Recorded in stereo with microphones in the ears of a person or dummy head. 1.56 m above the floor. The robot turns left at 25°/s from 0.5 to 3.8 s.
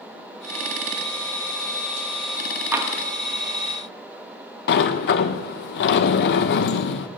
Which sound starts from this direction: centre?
Tapping, at 2.7 s.